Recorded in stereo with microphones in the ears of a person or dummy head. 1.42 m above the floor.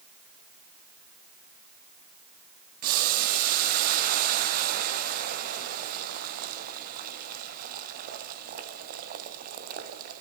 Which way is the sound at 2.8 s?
45° right (ahead or behind).